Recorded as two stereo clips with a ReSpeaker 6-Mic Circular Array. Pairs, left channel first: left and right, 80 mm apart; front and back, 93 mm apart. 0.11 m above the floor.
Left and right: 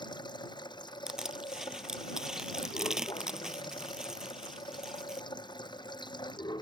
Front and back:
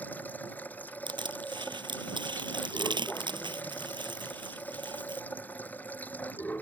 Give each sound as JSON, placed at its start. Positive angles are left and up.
{"t": 0.0, "sound": "running water", "azimuth_deg": 70}
{"t": 1.1, "sound": "crushing", "azimuth_deg": -170}